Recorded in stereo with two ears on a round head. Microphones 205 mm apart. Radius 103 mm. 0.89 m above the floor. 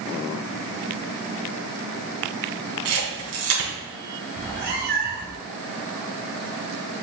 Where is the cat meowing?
45° right (ahead or behind), 1.4 m.